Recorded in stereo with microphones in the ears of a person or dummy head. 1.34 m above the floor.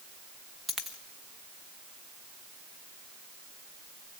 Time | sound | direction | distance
0.7 | a dropped coin | 5° left (ahead or behind) | 1.1 m